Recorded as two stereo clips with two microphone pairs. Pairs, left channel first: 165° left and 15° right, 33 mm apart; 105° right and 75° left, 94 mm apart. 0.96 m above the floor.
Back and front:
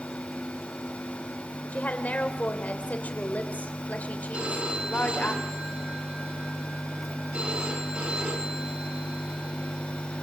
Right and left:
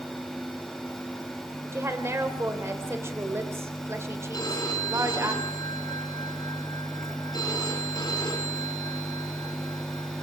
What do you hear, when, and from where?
1.7 s a woman speaking: 135° left, 3.5 m
4.3 s a phone ringing: 60° right, 7 m